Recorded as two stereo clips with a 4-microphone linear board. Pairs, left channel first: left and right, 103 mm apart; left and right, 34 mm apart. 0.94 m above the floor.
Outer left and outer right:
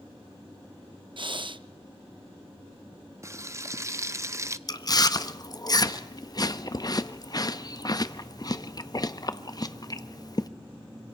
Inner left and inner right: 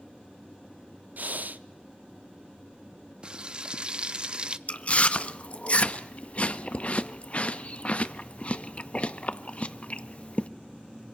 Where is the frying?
30° right (ahead or behind), 0.5 m.